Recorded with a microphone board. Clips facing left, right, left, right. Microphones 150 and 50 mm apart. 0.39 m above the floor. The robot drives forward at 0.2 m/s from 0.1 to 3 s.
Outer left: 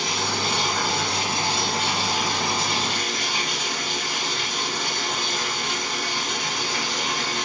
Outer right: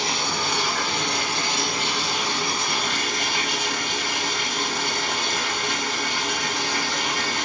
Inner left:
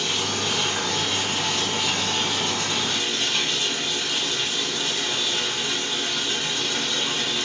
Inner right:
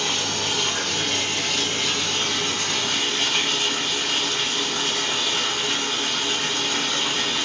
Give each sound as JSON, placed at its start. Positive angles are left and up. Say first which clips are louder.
{"t": 0.0, "sound": "running water", "louder": "even, even", "side_deg": -60, "distance_m": 1.4}